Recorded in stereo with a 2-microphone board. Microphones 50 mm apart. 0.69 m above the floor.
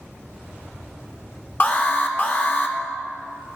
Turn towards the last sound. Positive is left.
turn(degrees=40)  # may be behind; listen again after turning